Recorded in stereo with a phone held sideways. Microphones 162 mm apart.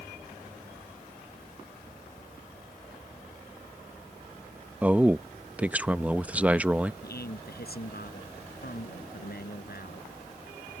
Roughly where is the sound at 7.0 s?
Left.